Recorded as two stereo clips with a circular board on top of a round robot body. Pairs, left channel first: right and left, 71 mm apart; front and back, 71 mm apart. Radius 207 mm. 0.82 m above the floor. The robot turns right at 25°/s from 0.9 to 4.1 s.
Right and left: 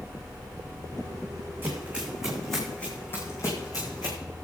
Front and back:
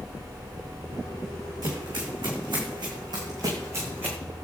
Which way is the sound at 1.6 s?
155° left.